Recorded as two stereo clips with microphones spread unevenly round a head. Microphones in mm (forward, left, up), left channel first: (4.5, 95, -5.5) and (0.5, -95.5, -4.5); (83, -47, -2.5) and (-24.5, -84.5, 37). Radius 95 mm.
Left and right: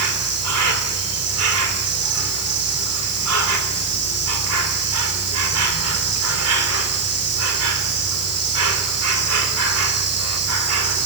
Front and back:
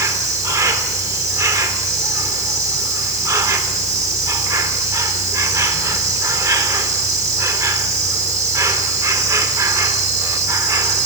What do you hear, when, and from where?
0.0 s an insect: 100° right, 4 m